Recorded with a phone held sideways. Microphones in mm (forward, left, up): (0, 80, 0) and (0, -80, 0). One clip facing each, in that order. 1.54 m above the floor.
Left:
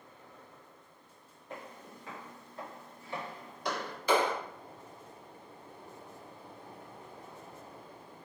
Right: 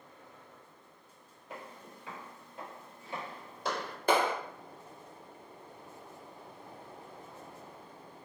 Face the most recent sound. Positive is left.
turn(degrees=-50)  # may be behind; listen again after turning